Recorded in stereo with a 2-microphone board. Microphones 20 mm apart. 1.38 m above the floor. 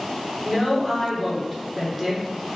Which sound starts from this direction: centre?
A woman speaking, at 0.4 s.